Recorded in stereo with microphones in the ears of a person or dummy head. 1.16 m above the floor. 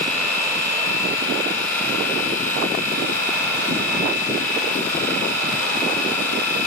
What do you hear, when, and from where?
0.0 s a machine running: 15° left (ahead or behind), 6.5 m